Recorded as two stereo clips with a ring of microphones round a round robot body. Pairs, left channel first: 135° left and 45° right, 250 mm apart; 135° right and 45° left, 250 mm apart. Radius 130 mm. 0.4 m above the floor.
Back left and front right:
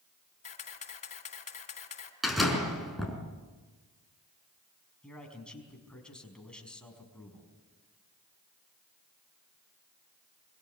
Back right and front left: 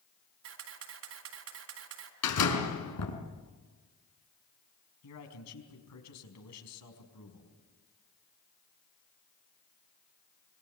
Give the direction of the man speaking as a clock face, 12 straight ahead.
5 o'clock.